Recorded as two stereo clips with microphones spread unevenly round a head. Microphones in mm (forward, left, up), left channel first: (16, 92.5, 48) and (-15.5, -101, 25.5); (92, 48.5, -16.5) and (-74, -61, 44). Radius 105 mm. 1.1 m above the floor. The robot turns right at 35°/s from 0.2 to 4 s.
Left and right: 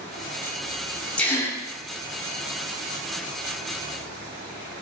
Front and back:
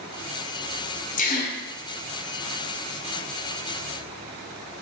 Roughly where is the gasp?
Ahead.